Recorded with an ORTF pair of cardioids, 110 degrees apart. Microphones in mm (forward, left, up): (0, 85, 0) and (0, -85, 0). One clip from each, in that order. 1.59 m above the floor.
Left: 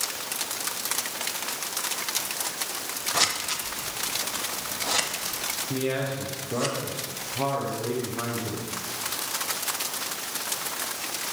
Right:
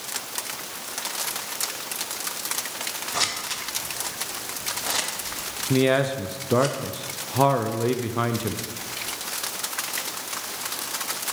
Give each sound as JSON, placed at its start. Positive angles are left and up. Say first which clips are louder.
{"t": 3.1, "sound": "scissors", "louder": "left 1 dB", "azimuth_deg": 5, "distance_m": 0.7}
{"t": 5.7, "sound": "a man speaking", "louder": "right 10 dB", "azimuth_deg": -45, "distance_m": 0.6}